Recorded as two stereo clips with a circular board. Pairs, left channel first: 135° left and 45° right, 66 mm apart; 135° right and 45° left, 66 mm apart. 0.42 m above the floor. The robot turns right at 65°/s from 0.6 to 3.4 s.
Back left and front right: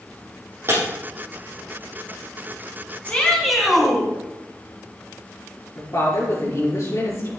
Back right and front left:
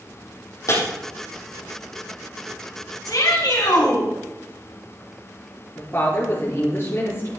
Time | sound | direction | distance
0.7 | breaking glass | 95° right | 7 m
3.0 | a shout | 160° right | 4 m
5.8 | a woman speaking | 170° left | 6.5 m